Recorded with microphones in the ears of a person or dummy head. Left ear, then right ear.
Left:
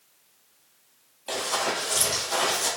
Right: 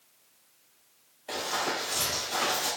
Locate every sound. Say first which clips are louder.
1.3 s running footsteps: left 3 dB; 30° left (ahead or behind), 2.0 m; by 2.7 s 5° left (ahead or behind), 2.0 m